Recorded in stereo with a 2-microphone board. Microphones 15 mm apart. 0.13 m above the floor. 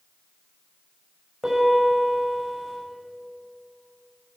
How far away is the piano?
About 7 m.